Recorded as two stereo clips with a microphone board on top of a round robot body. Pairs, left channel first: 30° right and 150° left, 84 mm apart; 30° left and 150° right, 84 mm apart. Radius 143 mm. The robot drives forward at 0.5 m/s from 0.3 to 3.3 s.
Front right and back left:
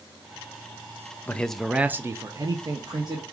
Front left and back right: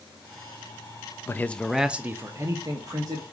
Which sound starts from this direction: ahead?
A man speaking, at 1.3 s.